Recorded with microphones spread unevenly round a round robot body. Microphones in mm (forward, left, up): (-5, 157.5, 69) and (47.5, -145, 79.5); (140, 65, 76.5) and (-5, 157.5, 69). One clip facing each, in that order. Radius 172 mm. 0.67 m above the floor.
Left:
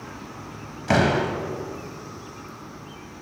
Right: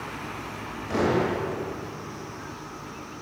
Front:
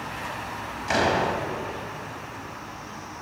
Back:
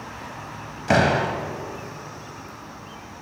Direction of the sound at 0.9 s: 115° left.